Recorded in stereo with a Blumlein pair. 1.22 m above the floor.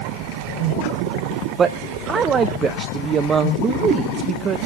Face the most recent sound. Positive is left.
turn(degrees=-20)